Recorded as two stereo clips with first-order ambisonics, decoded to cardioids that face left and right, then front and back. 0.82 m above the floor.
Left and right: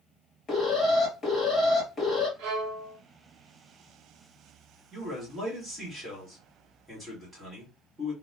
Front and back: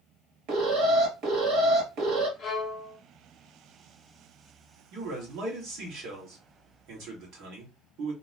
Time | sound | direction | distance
0.5 | an alarm | 155° left | 2 m
2.4 | a violin | 65° right | 1.1 m
4.9 | a man speaking | 165° right | 1.6 m